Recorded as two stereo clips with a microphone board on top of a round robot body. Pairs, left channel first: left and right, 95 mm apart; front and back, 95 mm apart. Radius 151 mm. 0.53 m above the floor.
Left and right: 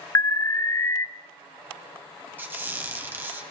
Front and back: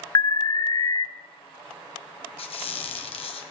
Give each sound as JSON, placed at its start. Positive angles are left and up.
{"t": 0.1, "sound": "an alarm", "azimuth_deg": 35, "distance_m": 0.5}
{"t": 2.4, "sound": "a squeak", "azimuth_deg": -20, "distance_m": 1.6}